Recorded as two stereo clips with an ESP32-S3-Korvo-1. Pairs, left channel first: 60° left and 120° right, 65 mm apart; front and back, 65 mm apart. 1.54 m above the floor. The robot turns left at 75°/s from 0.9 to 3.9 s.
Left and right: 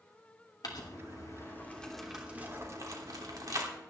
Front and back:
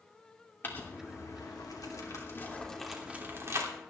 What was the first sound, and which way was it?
Crumpling, 55° left.